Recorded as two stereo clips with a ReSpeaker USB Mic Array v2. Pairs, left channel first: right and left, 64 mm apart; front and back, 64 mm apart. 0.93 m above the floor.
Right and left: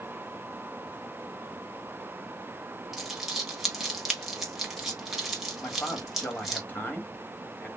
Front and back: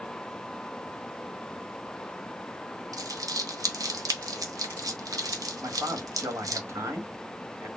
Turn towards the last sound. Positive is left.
turn(degrees=-145)